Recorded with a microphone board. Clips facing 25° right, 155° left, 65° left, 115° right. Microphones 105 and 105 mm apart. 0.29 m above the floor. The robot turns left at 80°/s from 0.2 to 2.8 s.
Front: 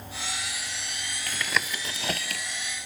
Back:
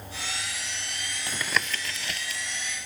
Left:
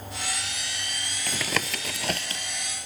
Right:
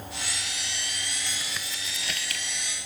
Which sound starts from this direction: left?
Tapping, at 1.3 s.